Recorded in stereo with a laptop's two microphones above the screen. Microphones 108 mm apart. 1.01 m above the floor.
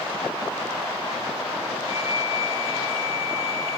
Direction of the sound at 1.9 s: 65° left (ahead or behind).